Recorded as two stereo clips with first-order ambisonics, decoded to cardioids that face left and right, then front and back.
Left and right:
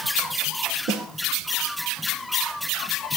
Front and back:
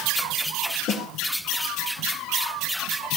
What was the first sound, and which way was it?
A snare drum, 45° right.